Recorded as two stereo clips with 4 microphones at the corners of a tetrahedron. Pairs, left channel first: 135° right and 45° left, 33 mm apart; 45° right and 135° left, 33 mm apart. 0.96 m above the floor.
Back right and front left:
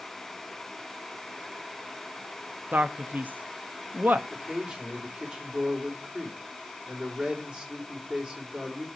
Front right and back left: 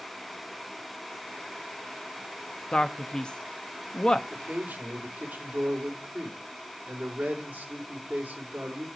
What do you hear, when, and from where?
2.7 s a man speaking: 20° left, 1.0 m
4.3 s a man speaking: 100° left, 3.5 m